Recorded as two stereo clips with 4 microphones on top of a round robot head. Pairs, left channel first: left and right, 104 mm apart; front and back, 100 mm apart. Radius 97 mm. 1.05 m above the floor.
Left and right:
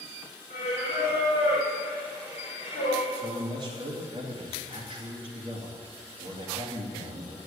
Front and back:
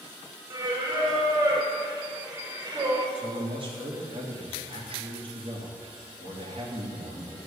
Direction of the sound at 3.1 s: 140° right.